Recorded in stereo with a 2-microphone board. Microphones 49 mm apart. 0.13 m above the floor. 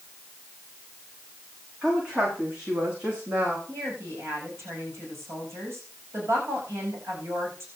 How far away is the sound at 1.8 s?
About 7.5 m.